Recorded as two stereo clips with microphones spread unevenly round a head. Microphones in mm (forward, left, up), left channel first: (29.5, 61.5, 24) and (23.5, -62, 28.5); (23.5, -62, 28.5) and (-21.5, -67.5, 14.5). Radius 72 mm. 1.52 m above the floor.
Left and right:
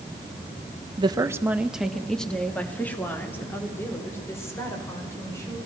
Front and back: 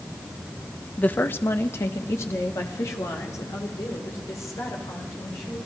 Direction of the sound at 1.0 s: 45° right.